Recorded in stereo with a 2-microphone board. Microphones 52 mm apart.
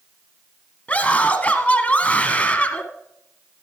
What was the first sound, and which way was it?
A scream, 25° left (ahead or behind).